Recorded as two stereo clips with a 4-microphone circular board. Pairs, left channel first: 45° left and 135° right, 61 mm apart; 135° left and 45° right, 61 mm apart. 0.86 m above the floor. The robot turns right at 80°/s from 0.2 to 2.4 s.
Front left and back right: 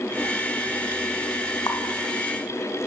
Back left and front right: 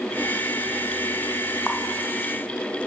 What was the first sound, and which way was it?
A running tap, 45° left.